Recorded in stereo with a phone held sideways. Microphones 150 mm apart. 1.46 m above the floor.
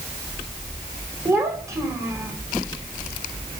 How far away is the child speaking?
About 5 m.